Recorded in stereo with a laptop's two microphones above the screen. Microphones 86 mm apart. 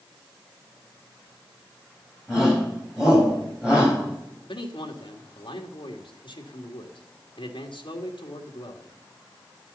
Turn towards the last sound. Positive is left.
turn(degrees=75)  # may be behind; listen again after turning